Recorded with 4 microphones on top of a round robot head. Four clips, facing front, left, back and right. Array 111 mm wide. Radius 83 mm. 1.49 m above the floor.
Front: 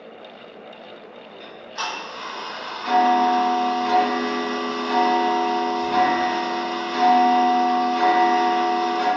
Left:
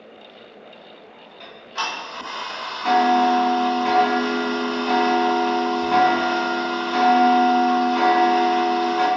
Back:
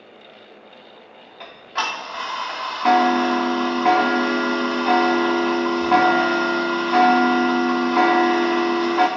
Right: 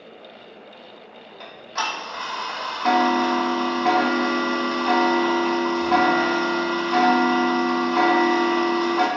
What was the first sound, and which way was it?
Ticking, 160° right.